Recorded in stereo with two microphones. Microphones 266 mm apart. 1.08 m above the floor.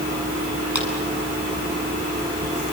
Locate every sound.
0.8 s a clap: 90° left, 8 m